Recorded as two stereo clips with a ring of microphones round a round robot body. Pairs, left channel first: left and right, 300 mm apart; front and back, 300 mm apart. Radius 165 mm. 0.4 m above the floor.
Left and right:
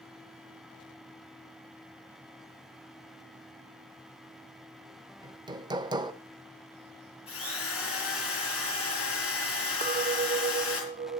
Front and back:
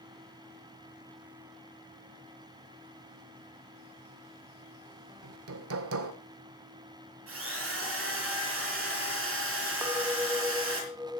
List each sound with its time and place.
5.2 s hammering: 160° right, 1.2 m
7.3 s a drill: 135° left, 8 m
9.8 s a clink: 110° right, 0.5 m